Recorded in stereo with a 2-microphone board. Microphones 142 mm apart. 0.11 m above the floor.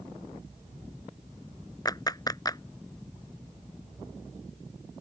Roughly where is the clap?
Left.